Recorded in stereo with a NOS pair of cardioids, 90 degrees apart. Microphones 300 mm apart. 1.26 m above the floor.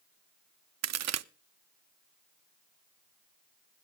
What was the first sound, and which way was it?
A crack, 60° right.